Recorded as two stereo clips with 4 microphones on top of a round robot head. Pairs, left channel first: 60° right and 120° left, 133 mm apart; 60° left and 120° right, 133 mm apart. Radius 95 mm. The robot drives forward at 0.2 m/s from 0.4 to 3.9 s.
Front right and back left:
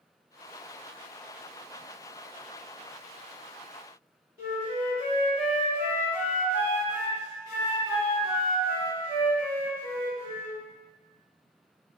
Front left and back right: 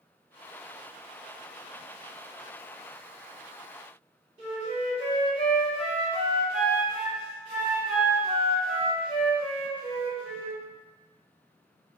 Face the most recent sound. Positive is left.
turn(degrees=-175)